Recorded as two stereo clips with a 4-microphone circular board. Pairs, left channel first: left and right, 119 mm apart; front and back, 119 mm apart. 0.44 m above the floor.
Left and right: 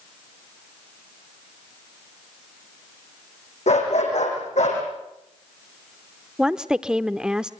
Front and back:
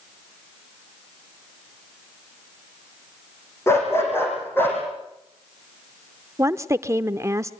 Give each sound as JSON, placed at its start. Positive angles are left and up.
{"t": 3.7, "sound": "a dog barking", "azimuth_deg": 70, "distance_m": 8.0}
{"t": 6.4, "sound": "a woman speaking", "azimuth_deg": -165, "distance_m": 0.8}